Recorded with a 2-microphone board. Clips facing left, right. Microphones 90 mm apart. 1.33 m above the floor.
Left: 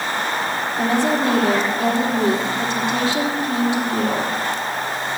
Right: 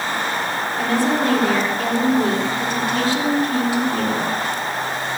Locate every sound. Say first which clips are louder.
0.8 s a woman speaking: even; 25° left (ahead or behind), 3.5 m